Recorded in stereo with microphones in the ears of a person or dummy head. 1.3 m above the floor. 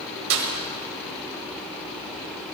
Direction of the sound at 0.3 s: 85° right.